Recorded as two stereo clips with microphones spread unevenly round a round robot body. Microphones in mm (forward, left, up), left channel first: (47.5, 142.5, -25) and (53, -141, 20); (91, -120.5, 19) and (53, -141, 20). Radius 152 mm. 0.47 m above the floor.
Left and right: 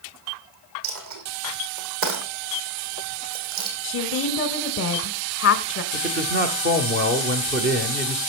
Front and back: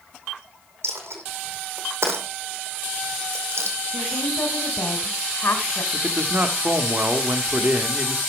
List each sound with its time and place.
0.8 s a dropped coin: 135° right, 2.5 m
3.8 s a woman speaking: 55° left, 1.5 m
5.9 s a man speaking: 135° right, 1.0 m